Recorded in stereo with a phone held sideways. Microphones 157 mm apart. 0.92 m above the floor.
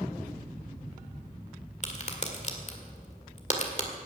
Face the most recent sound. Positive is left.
turn(degrees=45)  # may be behind; listen again after turning